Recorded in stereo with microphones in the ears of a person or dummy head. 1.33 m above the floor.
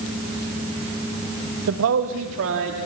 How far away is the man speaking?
About 1.5 m.